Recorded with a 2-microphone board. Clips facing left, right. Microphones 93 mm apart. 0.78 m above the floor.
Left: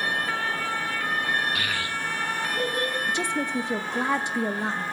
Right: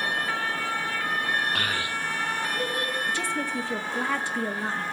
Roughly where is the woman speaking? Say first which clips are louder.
Left 2 dB; centre.